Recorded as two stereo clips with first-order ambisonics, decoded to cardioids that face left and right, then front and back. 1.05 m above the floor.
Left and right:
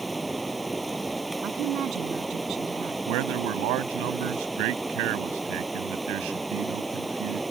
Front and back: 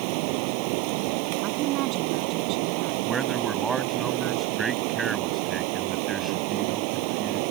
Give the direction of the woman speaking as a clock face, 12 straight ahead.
5 o'clock.